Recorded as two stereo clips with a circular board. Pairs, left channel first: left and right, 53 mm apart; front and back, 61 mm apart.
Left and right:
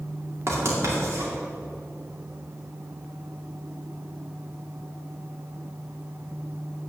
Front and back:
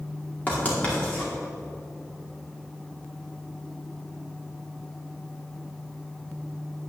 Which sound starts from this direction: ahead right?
Writing, at 0.5 s.